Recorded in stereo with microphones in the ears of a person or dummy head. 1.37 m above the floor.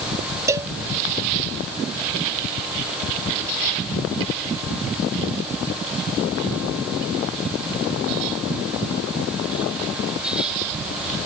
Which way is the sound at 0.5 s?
20° right (ahead or behind).